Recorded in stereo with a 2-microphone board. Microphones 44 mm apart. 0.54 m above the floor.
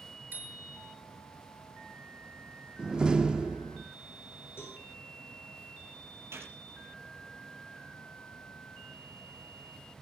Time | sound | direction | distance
0.3 | a bicycle bell | 50° right (ahead or behind) | 7.5 m
2.8 | a door slam | 20° right (ahead or behind) | 0.9 m
4.6 | a cowbell | 65° left (ahead or behind) | 9.5 m
6.3 | a gunshot | 75° right (ahead or behind) | 5 m